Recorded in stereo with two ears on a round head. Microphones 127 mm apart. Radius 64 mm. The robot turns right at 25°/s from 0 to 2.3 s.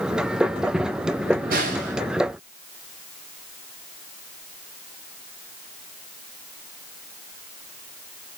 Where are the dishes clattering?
No dishes clattering in this recording.